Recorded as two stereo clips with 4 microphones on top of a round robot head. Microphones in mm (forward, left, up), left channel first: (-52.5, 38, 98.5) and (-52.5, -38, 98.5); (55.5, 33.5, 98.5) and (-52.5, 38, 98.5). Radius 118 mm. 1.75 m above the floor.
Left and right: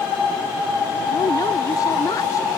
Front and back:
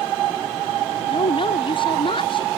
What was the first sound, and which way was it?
A woman speaking, 35° left.